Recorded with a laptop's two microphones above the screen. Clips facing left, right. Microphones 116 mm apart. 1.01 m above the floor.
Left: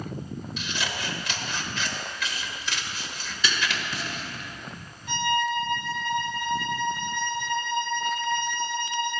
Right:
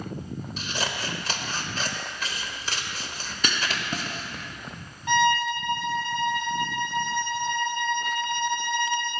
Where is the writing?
45° right (ahead or behind), 1.3 m.